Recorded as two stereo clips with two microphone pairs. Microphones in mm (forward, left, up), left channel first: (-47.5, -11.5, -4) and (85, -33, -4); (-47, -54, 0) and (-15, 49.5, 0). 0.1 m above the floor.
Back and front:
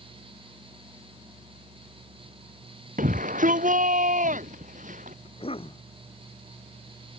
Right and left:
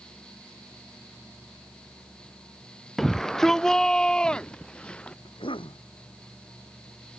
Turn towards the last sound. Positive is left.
turn(degrees=-145)